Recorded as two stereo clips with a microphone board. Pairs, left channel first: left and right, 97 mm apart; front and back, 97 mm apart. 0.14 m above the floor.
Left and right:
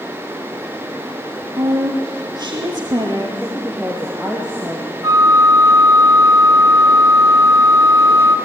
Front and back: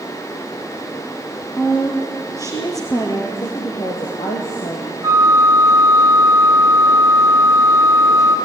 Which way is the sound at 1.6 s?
50° right.